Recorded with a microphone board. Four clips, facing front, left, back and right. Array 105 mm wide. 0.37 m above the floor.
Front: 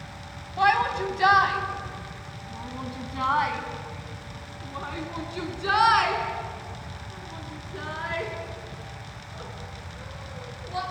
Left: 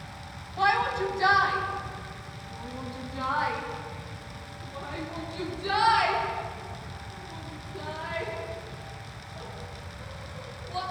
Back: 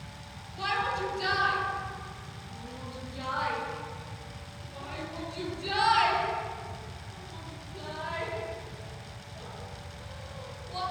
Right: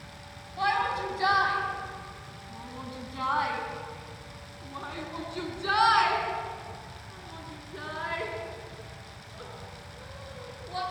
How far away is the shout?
About 3 m.